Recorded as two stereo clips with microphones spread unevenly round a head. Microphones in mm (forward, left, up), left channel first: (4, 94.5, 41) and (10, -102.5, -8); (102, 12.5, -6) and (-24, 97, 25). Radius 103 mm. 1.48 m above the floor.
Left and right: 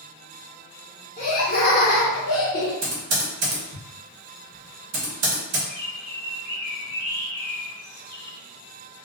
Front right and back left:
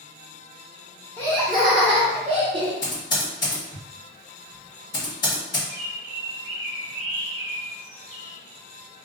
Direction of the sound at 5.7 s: 155° left.